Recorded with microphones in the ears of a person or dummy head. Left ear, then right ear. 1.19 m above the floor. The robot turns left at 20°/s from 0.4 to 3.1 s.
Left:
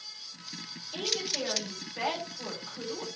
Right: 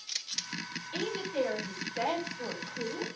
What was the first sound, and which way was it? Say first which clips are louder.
A woman speaking: left 2 dB; 150° right.